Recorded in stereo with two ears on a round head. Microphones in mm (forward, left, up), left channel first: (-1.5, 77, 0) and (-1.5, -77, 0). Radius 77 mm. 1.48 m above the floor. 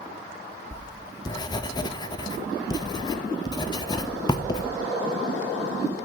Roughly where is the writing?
Left.